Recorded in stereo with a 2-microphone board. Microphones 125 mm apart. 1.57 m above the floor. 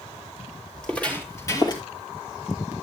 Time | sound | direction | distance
0.7 | footsteps | 5° left (ahead or behind) | 2.5 m